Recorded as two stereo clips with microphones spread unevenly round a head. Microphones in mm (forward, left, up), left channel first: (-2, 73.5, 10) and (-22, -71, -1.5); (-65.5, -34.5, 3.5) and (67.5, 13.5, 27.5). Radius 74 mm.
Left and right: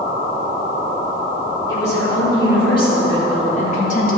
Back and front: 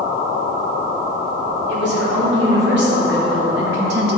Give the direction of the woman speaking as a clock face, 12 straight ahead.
12 o'clock.